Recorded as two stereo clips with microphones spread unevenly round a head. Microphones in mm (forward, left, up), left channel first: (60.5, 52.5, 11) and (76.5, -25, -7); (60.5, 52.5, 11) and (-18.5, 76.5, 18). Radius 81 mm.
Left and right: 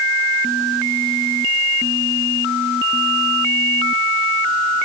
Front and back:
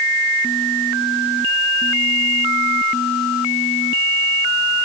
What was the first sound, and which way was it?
Only background noise.